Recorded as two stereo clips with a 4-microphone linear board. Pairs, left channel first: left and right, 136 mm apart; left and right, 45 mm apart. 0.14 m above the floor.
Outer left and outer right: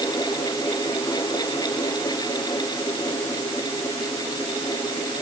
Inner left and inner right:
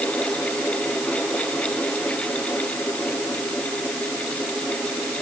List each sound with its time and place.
Only background noise.